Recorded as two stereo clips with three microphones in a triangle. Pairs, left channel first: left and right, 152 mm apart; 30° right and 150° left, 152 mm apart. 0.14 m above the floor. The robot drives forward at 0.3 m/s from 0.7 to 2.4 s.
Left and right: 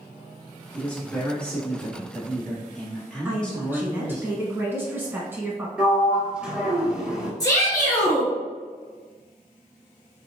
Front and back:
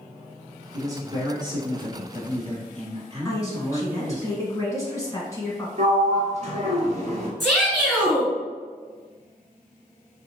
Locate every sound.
0.7 s a man speaking: 155° left, 1.1 m; by 4.2 s 170° left, 1.4 m
3.2 s a woman speaking: 40° right, 1.1 m
5.8 s a sliding door: 170° right, 0.7 m
7.4 s a shout: 60° left, 1.7 m